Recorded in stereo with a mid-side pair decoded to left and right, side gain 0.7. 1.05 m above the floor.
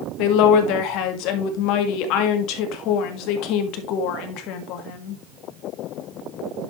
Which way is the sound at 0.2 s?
65° left.